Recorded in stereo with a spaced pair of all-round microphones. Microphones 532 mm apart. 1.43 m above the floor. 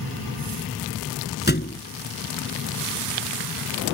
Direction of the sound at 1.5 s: 20° left (ahead or behind).